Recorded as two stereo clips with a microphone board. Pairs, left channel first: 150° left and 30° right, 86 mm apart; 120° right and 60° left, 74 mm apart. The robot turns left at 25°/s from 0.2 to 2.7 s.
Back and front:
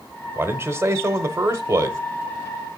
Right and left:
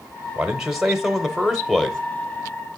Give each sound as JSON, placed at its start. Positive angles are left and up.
{"t": 0.3, "sound": "a man speaking", "azimuth_deg": -5, "distance_m": 1.0}